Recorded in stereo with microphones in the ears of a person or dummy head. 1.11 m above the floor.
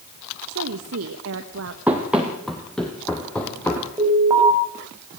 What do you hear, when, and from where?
0.5 s a woman speaking: 70° right (ahead or behind), 1.1 m
1.9 s running footsteps: 5° right (ahead or behind), 3 m; by 3.9 s 15° left (ahead or behind), 3.5 m
4.0 s an alarm: 15° right (ahead or behind), 5 m